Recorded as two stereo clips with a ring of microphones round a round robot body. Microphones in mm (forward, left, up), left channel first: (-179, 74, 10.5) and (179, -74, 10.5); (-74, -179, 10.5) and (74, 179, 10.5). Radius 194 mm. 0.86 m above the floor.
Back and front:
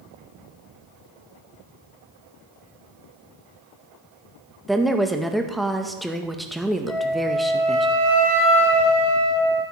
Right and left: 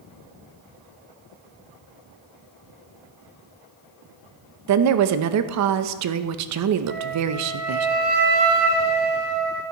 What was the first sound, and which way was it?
A woman speaking, 70° left.